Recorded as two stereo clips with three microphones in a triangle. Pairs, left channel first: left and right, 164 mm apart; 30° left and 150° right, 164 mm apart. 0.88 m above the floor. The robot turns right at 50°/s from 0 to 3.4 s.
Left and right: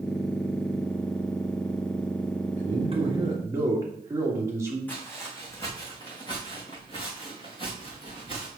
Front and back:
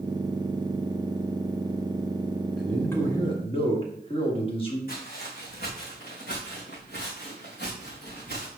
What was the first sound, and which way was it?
A man speaking, 60° right.